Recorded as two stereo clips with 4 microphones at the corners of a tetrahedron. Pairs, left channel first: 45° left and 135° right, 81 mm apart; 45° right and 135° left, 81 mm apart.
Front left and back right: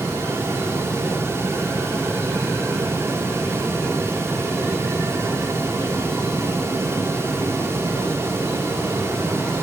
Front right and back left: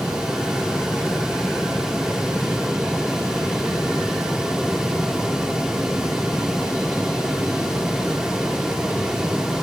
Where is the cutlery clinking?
No cutlery clinking in this recording.